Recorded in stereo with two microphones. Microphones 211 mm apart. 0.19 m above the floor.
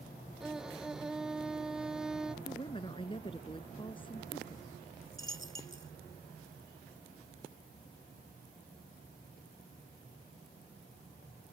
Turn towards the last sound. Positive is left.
turn(degrees=-70)  # may be behind; listen again after turning